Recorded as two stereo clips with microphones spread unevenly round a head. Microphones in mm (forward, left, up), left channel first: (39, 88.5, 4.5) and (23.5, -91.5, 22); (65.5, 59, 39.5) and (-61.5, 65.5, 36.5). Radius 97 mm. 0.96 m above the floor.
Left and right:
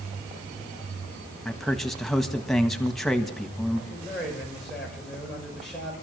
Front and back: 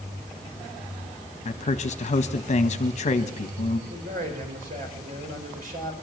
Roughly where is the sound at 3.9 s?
Behind.